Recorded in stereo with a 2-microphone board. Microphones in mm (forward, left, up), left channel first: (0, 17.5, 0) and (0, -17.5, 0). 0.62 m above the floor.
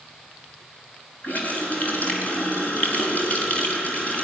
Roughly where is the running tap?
Left.